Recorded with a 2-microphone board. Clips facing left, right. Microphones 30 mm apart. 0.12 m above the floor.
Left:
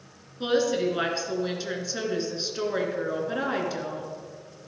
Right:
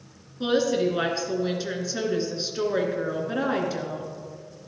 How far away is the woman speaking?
About 1.6 m.